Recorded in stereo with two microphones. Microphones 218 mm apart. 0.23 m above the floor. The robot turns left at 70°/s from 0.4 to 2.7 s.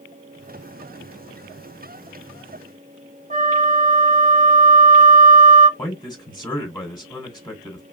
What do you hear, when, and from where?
3.3 s a flute: 35° right (ahead or behind), 0.9 m
5.8 s a man speaking: 20° left (ahead or behind), 1.4 m